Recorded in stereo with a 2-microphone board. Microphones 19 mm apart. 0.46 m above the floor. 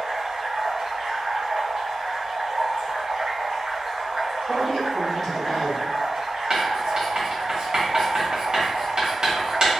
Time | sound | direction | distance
0.0 | running water | 55° right (ahead or behind) | 1.5 m
4.5 | a man speaking | 5° left (ahead or behind) | 1.5 m
6.5 | writing | 35° right (ahead or behind) | 1.6 m